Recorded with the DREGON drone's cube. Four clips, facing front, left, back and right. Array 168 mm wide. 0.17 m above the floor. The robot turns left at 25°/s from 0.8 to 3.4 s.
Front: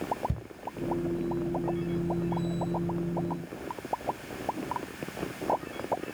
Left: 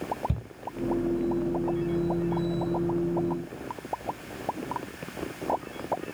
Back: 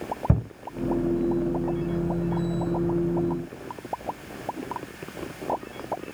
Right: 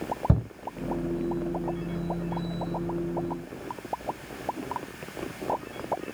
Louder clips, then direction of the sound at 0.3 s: Right 9 dB, back 12 dB; 140° right.